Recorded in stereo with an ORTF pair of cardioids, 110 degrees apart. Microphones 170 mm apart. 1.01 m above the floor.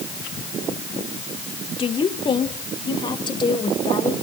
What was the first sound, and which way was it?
A woman speaking, 35° left.